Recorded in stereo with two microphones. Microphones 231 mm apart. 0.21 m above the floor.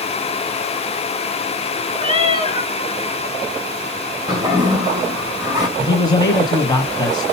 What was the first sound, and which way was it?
A cat meowing, 25° right (ahead or behind).